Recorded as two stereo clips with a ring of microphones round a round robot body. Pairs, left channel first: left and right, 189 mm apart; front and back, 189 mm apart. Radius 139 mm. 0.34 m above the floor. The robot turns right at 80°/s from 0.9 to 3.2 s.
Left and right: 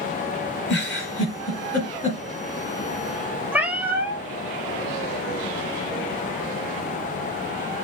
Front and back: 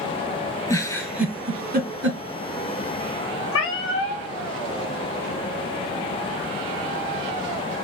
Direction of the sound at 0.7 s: 70° left.